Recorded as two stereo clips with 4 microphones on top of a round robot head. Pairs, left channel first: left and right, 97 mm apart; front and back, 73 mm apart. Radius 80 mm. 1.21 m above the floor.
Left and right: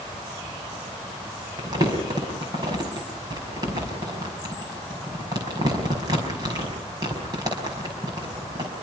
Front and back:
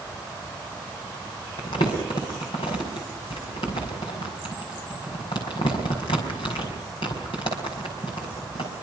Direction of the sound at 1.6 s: 30° right.